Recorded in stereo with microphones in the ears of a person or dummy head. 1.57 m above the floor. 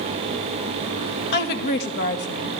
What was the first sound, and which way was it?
A woman speaking, 55° left (ahead or behind).